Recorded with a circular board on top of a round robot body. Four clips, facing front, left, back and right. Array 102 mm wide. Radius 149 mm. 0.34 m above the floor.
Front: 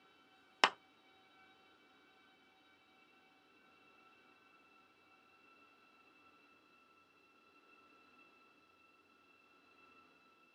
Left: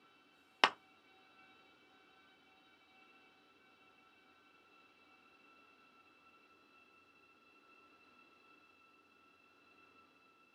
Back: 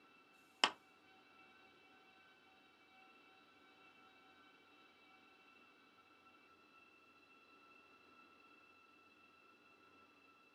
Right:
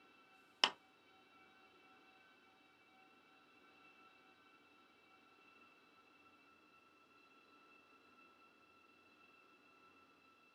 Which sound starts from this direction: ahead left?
A clap, at 0.6 s.